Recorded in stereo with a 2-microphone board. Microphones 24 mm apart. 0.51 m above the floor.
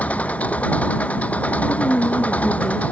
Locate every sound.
0.0 s an engine running: 80° left
1.7 s a woman speaking: 40° left (ahead or behind)